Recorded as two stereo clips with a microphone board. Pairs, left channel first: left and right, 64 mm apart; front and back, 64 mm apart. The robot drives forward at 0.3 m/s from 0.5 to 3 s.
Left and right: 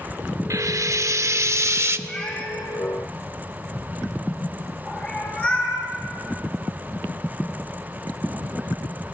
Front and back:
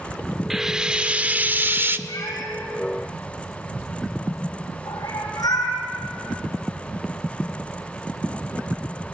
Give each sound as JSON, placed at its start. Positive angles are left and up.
{"t": 0.5, "sound": "frying", "azimuth_deg": -95, "distance_m": 0.7}
{"t": 2.1, "sound": "a cat meowing", "azimuth_deg": 20, "distance_m": 6.0}